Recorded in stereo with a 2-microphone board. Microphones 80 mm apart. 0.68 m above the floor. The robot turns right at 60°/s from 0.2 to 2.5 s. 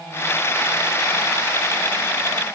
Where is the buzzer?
I don't hear a buzzer.